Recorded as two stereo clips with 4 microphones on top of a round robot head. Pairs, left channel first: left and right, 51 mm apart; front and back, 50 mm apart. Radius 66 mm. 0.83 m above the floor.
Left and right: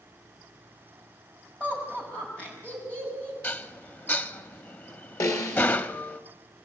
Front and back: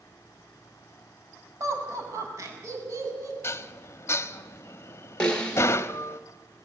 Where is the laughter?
160° left, 6 m.